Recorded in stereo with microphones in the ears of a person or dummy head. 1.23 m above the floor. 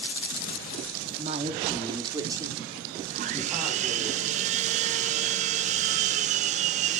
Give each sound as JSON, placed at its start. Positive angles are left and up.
{"t": 1.2, "sound": "a woman speaking", "side_deg": -45, "distance_m": 2.0}
{"t": 3.1, "sound": "sawing", "side_deg": -40, "distance_m": 0.6}